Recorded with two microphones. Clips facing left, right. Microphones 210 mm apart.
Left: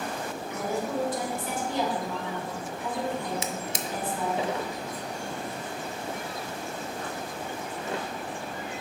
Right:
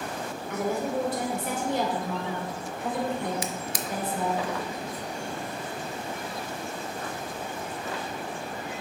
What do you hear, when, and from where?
0.5 s a woman speaking: 65° right (ahead or behind), 2.5 m
3.4 s a drawer: 25° left (ahead or behind), 0.5 m